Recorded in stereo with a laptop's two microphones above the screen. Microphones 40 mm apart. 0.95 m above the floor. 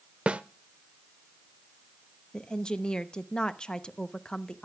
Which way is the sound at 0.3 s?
30° right (ahead or behind).